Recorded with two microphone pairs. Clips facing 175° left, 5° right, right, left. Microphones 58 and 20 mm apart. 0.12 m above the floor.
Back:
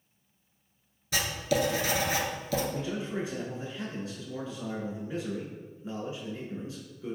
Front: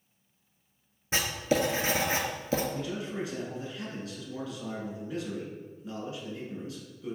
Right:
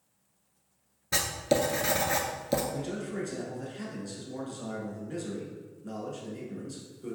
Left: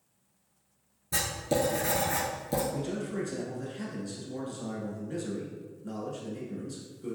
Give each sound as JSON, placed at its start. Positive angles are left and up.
{"t": 1.1, "sound": "writing", "azimuth_deg": -55, "distance_m": 0.6}
{"t": 2.7, "sound": "a man speaking", "azimuth_deg": -160, "distance_m": 1.1}